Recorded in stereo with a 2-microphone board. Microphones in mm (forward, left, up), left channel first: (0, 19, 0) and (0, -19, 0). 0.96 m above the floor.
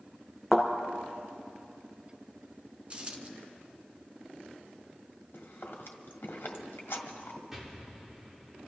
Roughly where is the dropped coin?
Right.